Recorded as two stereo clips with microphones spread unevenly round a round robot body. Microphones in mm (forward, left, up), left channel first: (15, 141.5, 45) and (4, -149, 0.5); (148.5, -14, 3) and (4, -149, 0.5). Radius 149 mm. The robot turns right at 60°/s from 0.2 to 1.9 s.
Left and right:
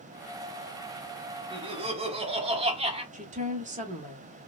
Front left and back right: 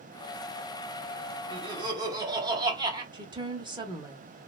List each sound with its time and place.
1.5 s laughter: 120° right, 0.7 m; by 3.0 s 95° right, 0.7 m
3.1 s a woman speaking: 90° right, 0.8 m